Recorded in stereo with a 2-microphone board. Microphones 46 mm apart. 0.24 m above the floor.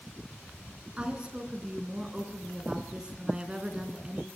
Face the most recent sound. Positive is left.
turn(degrees=-20)  # may be behind; listen again after turning